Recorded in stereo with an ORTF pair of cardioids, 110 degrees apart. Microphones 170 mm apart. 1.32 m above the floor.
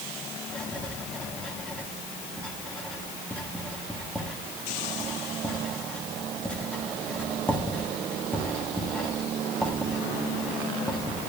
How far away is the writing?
About 1.4 m.